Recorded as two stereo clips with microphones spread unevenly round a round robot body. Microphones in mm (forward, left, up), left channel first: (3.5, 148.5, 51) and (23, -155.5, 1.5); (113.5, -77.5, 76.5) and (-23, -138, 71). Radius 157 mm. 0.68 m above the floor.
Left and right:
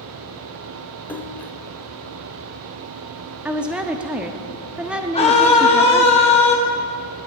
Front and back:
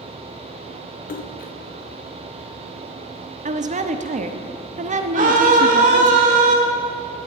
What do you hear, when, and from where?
1.1 s a splash: 15° left, 0.5 m
3.5 s a woman speaking: 165° right, 1.0 m
5.1 s a scream: 165° left, 2.5 m